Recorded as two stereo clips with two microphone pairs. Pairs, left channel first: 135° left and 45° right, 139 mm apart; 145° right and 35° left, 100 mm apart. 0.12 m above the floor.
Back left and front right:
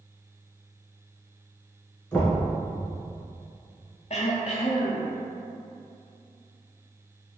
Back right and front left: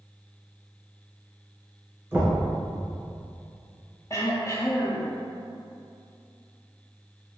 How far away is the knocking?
About 1.3 m.